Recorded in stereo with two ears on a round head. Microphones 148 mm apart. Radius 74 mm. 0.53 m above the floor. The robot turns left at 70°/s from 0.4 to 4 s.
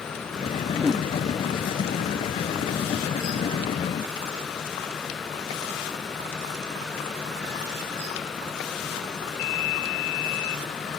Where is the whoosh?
10° right (ahead or behind); by 1.1 s 15° left (ahead or behind).